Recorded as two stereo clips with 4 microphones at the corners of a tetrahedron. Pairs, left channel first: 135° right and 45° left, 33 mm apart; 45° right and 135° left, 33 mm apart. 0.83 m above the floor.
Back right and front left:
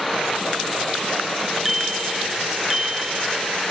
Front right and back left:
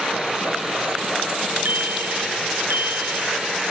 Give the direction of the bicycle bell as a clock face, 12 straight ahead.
8 o'clock.